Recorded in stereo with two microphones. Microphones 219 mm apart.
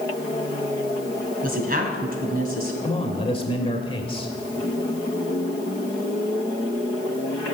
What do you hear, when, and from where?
1.4 s a woman speaking: 40° right (ahead or behind), 3 m
2.8 s a man speaking: 25° left (ahead or behind), 1.6 m